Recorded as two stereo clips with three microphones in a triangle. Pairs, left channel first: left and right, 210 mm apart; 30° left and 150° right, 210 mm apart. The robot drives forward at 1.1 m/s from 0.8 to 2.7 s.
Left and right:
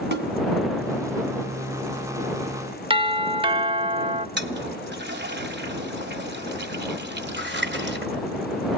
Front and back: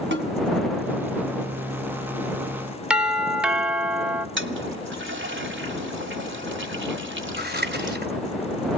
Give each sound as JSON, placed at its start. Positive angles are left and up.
{"t": 0.1, "sound": "a snare drum", "azimuth_deg": -125, "distance_m": 2.0}
{"t": 2.9, "sound": "a doorbell", "azimuth_deg": -70, "distance_m": 1.1}
{"t": 4.4, "sound": "a toilet flushing", "azimuth_deg": -125, "distance_m": 1.5}
{"t": 7.4, "sound": "scissors", "azimuth_deg": -115, "distance_m": 3.5}